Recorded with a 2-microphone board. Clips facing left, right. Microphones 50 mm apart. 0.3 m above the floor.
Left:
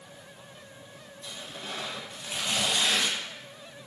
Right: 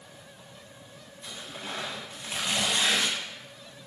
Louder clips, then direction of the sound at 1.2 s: Right 1 dB; 15° right (ahead or behind).